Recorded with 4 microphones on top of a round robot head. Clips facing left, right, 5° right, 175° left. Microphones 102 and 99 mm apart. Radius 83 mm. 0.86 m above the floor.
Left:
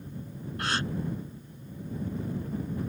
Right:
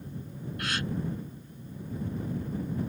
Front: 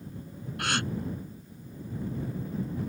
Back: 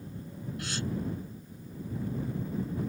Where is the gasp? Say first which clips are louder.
Left 3 dB, front 6 dB; 20° left.